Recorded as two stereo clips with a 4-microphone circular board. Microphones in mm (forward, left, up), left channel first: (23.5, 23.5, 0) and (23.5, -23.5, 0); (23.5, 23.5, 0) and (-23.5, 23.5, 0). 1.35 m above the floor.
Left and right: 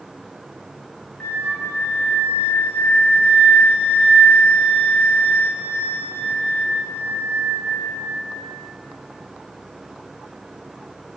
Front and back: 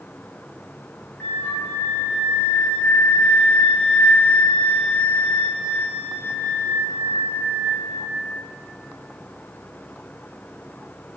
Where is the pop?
I don't hear a pop.